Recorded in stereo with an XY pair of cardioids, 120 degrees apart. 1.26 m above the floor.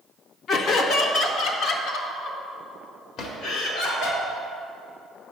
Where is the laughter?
55° left, 0.9 m; by 4.2 s 75° left, 4 m.